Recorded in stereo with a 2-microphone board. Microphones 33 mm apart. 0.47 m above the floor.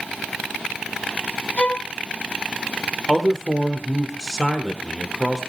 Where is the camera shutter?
I don't hear a camera shutter.